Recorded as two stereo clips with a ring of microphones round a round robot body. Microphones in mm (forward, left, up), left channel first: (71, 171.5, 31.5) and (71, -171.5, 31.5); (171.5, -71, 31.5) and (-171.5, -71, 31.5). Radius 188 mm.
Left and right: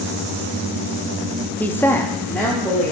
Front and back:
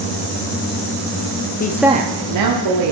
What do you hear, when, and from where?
1.6 s a woman speaking: 10° left, 0.7 m; by 2.9 s 175° left, 1.8 m